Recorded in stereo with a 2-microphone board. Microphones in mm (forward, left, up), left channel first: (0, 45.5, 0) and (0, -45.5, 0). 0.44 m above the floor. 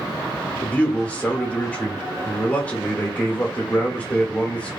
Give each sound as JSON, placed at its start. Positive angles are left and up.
{"t": 0.6, "sound": "a man speaking", "side_deg": 15, "distance_m": 0.8}